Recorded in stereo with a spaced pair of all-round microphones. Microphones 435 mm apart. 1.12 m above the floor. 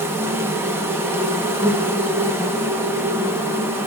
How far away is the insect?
About 0.8 m.